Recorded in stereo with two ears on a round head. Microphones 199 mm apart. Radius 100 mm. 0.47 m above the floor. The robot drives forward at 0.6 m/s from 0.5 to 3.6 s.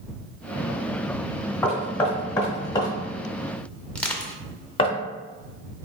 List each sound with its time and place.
1.6 s knocking: 10° left (ahead or behind), 1.5 m; by 5.0 s 25° left (ahead or behind), 0.6 m
4.0 s crushing: 5° left (ahead or behind), 0.6 m